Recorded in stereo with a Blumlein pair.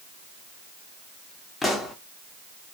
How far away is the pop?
About 0.7 m.